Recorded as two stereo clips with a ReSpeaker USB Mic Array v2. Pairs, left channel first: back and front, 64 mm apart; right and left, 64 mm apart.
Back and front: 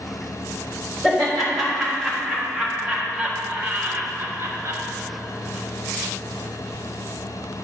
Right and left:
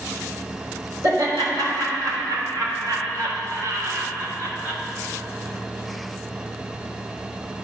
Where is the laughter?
95° left, 3 m; by 4.8 s 35° left, 1.2 m.